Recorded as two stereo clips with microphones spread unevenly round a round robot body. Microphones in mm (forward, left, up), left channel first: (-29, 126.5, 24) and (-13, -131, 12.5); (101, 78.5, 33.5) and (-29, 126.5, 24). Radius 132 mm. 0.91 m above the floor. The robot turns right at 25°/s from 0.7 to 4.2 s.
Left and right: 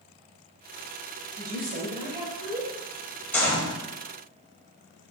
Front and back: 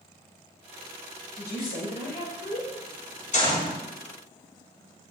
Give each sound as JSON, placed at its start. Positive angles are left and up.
{"t": 1.4, "sound": "a woman speaking", "azimuth_deg": -35, "distance_m": 4.0}
{"t": 3.3, "sound": "a gunshot", "azimuth_deg": 10, "distance_m": 4.0}